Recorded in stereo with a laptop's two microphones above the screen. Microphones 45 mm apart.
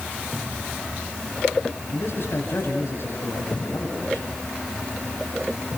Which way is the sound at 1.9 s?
65° left (ahead or behind).